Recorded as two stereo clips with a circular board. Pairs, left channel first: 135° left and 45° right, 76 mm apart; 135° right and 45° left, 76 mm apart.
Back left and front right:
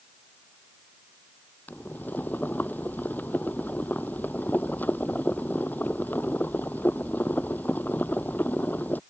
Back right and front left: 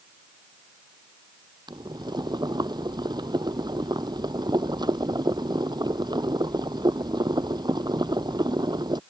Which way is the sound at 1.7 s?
70° left.